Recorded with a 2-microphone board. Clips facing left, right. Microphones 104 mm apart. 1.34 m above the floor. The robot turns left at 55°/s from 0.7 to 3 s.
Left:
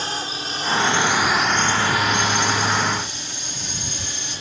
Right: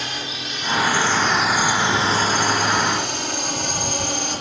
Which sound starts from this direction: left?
A drone, at 0.0 s.